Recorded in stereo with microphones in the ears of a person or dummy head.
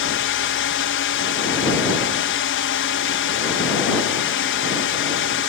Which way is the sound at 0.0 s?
55° left (ahead or behind).